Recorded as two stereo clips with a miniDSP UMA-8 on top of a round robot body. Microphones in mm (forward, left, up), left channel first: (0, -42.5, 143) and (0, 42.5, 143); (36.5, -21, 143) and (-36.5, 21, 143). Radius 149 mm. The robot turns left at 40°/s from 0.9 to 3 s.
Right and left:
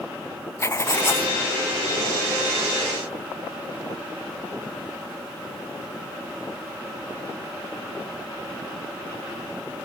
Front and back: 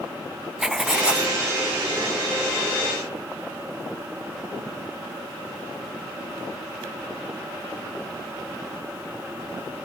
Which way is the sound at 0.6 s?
130° right.